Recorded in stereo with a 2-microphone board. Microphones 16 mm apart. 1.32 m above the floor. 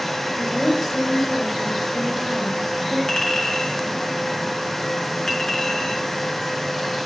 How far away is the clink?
About 4.5 m.